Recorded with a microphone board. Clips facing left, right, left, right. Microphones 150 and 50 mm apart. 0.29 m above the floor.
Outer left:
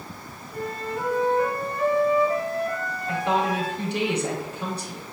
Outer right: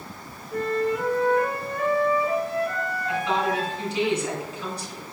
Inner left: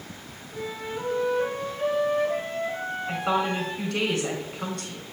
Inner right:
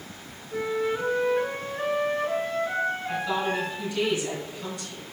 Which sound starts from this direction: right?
A flute, at 0.5 s.